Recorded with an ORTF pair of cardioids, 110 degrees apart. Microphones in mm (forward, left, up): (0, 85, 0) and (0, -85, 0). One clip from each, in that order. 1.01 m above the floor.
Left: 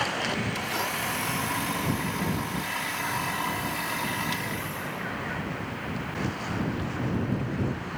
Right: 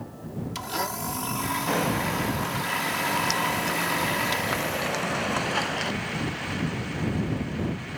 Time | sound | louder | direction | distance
0.6 | a blender | left 1 dB | 20° right | ?